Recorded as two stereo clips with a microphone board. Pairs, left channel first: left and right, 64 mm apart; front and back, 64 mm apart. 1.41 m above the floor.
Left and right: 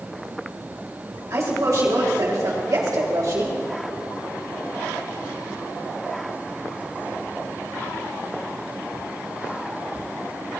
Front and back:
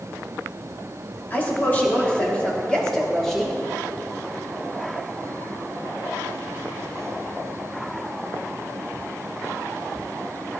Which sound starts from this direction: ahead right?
A woman speaking, at 1.3 s.